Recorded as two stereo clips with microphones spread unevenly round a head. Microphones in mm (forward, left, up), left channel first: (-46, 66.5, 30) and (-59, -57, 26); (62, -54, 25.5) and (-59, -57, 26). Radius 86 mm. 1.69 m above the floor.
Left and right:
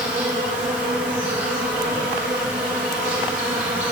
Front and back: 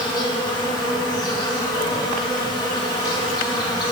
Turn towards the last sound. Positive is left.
turn(degrees=-50)